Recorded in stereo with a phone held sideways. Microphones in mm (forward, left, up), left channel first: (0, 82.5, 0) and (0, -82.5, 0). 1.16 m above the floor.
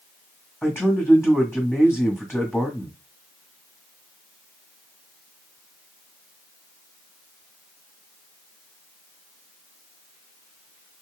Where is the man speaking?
15° left (ahead or behind), 1.5 m.